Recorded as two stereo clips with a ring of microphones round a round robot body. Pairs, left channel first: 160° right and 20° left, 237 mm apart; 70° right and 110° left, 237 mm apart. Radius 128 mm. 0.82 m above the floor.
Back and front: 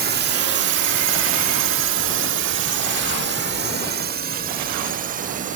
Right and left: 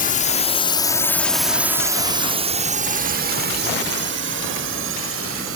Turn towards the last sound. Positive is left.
turn(degrees=80)